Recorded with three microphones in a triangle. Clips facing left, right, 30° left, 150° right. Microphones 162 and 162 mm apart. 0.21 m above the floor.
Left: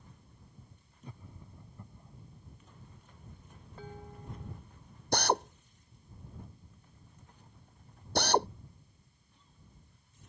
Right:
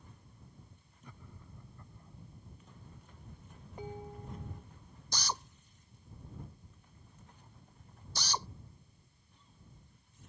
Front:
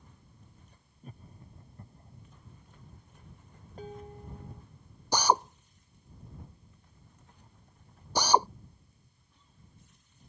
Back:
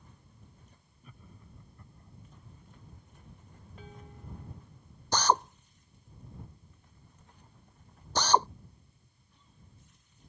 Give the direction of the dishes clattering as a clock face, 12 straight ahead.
1 o'clock.